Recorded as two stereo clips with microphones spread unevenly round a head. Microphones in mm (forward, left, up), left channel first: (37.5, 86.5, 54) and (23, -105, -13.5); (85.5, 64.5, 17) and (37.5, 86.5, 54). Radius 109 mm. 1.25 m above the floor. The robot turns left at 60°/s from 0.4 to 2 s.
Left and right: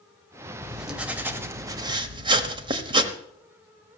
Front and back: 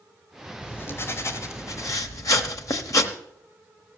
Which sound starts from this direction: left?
Writing, at 0.6 s.